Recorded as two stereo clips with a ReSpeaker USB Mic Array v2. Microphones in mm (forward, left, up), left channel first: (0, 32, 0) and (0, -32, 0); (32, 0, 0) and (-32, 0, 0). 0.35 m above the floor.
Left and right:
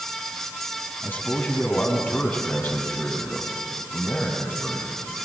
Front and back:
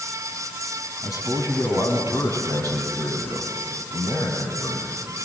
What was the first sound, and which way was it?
A man speaking, 155° left.